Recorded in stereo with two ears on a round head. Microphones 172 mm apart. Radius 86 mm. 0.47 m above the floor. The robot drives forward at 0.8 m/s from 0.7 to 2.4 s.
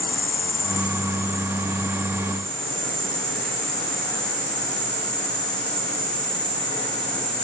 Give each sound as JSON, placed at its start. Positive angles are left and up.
{"t": 0.0, "sound": "an insect", "side_deg": 15, "distance_m": 1.0}